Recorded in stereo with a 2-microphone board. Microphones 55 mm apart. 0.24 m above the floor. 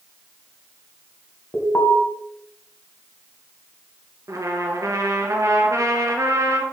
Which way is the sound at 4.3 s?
70° right (ahead or behind).